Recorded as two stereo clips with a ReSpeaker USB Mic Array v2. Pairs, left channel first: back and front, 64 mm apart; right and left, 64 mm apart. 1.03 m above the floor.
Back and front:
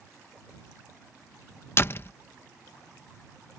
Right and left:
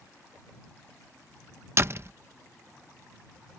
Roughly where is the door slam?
Behind left.